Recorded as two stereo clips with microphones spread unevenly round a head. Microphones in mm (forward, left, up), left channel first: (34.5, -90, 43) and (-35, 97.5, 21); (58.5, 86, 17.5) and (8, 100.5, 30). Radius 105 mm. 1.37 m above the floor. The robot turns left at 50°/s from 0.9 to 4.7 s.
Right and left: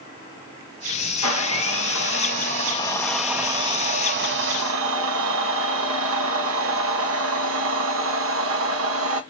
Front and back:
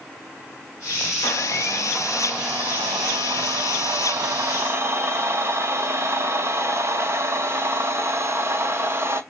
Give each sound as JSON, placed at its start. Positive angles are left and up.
{"t": 1.2, "sound": "a blender", "azimuth_deg": -60, "distance_m": 0.9}